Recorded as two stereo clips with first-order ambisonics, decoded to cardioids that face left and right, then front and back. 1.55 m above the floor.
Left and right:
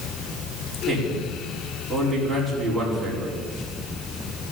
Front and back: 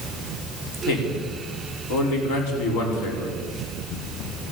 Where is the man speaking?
Straight ahead, 5 m.